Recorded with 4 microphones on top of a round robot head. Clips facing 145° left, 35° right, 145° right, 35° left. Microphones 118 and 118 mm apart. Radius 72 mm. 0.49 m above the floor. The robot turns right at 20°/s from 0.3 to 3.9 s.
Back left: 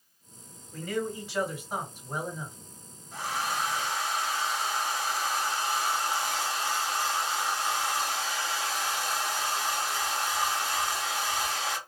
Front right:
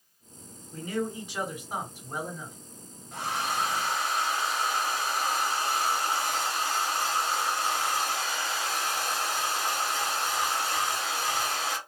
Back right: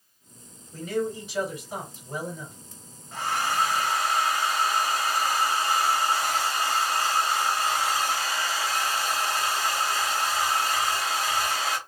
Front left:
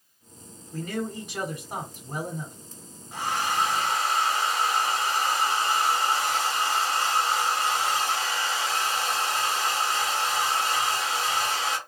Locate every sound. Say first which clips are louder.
0.7 s a man speaking: even, back right 3 dB; 20° left, 1.9 m; by 2.6 s 55° left, 1.9 m
3.1 s a hair dryer: front right 1 dB, even; 40° right, 1.1 m; by 11.8 s 20° right, 1.1 m